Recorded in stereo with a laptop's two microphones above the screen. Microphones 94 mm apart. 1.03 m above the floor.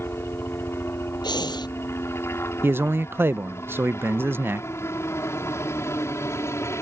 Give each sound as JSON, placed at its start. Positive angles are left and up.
{"t": 0.0, "sound": "a helicopter", "side_deg": 25}
{"t": 1.2, "sound": "breathing", "side_deg": 50}
{"t": 2.6, "sound": "a man speaking", "side_deg": -25}